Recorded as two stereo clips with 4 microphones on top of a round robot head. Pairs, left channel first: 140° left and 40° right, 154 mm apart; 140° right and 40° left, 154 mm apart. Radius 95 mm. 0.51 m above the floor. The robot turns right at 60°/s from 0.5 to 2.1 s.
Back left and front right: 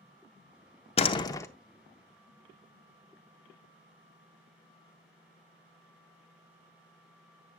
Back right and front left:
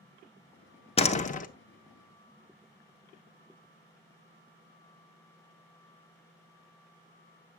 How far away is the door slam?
About 0.7 m.